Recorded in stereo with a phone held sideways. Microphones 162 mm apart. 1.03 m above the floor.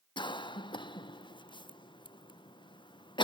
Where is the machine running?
I don't hear a machine running.